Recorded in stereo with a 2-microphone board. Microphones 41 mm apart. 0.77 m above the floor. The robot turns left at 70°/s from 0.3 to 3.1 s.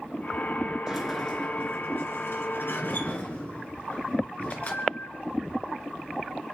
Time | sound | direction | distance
0.9 | a sliding door | 165° right | 3 m